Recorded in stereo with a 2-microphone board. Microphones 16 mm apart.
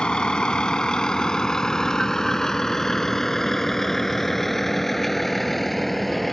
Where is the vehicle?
60° left (ahead or behind); by 6.3 s 5° left (ahead or behind).